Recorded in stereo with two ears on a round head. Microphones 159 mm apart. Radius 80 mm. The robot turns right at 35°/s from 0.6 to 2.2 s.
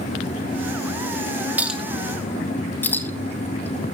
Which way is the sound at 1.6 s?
10° right (ahead or behind).